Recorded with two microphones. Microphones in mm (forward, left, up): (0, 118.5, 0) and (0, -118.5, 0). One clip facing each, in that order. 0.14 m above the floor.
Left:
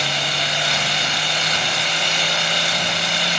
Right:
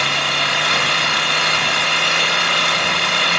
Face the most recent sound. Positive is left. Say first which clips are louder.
# right 2 dB
turn(degrees=-65)  # may be behind; listen again after turning